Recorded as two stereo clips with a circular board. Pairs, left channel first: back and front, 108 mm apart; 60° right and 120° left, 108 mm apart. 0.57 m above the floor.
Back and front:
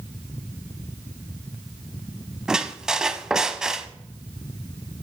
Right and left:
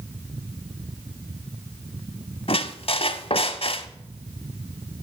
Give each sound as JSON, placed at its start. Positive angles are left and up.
{"t": 2.5, "sound": "a squeak", "azimuth_deg": -85, "distance_m": 0.8}